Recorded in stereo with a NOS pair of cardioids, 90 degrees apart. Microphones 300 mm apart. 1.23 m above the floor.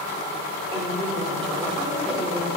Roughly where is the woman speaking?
Ahead.